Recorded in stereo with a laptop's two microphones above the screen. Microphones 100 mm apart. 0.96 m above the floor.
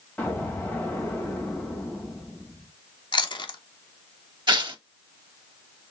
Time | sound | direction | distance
0.2 | an explosion | 15° left (ahead or behind) | 1.7 m
3.1 | chewing | 55° left (ahead or behind) | 0.9 m
4.5 | tearing paper | 50° right (ahead or behind) | 1.1 m